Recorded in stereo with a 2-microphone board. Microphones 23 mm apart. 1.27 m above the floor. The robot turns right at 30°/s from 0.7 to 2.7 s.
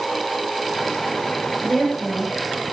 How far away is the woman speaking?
About 5 m.